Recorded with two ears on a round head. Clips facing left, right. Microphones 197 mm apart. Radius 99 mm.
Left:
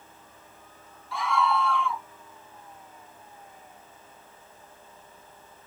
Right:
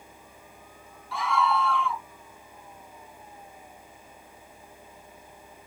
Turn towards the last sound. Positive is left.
turn(degrees=0)  # may be behind; listen again after turning